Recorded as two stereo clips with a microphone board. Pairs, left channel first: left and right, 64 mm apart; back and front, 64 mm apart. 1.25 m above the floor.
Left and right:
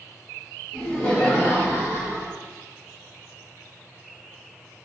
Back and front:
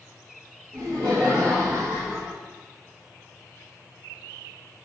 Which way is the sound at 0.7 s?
10° left.